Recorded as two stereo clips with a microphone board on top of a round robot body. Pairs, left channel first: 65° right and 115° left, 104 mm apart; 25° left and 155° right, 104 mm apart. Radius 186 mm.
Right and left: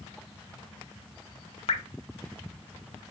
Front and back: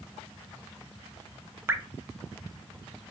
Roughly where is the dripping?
Right.